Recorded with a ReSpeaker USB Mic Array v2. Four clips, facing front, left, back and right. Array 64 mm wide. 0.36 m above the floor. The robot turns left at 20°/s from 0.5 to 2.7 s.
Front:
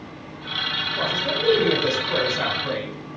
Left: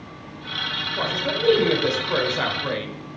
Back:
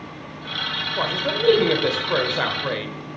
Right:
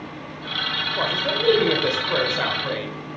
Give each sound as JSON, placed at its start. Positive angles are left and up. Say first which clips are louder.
{"t": 1.0, "sound": "a man speaking", "louder": "even, back 2 dB", "azimuth_deg": -145, "distance_m": 1.3}